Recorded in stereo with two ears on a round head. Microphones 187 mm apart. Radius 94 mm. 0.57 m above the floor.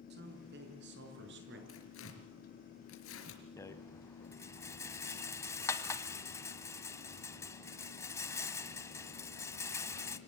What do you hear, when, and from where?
0.1 s a man speaking: 50° right (ahead or behind), 5 m; by 1.6 s 55° right (ahead or behind), 7.5 m
1.7 s tearing paper: 75° left (ahead or behind), 4 m
3.6 s a rattle: 15° left (ahead or behind), 1.4 m